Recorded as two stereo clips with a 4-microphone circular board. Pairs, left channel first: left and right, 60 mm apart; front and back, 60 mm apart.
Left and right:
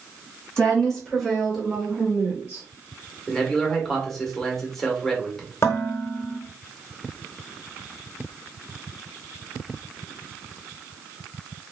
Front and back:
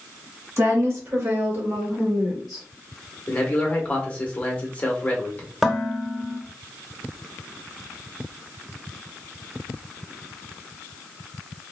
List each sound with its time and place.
0.6 s a woman speaking: 160° left, 1.3 m; by 2.6 s 95° right, 0.9 m
3.3 s a man speaking: 10° left, 0.8 m
5.6 s dishes clattering: 100° left, 0.6 m